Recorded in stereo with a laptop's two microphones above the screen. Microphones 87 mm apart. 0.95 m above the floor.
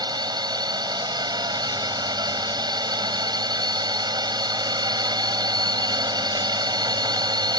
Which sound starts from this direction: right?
A drone, at 0.0 s.